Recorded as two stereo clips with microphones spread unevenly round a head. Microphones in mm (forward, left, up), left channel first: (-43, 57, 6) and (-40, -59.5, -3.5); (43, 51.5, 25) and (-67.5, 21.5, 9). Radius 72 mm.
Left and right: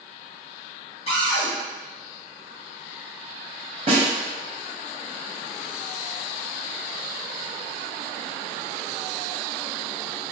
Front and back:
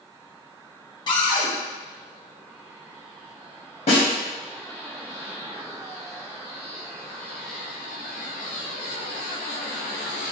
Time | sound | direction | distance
1.1 | a cupboard door | 55° left | 0.8 m
3.9 | a snare drum | 35° right | 0.7 m